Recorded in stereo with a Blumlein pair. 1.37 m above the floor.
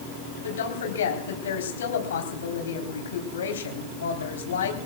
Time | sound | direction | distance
0.4 | a woman speaking | 65° left | 3.5 m